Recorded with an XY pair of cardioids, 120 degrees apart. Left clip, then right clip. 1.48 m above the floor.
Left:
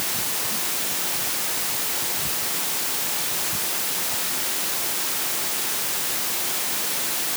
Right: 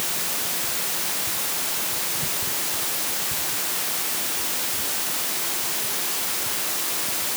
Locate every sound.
Only background noise.